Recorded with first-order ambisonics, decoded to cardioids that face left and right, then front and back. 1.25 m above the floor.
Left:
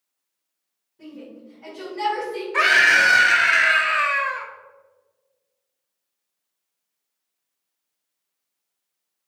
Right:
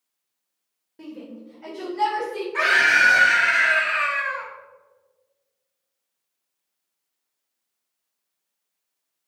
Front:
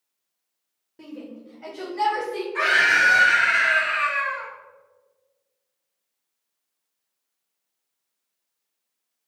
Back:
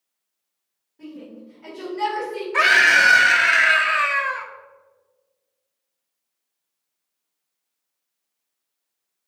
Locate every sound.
1.0 s a shout: 50° right, 0.8 m; by 2.4 s 20° left, 2 m
2.5 s a scream: 140° left, 0.6 m